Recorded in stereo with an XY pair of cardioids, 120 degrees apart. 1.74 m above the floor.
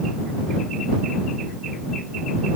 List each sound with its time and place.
Only background noise.